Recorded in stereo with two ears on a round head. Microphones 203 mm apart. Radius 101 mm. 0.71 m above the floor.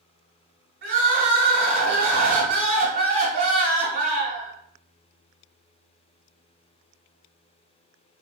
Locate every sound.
0.8 s crying: 60° right (ahead or behind), 1.5 m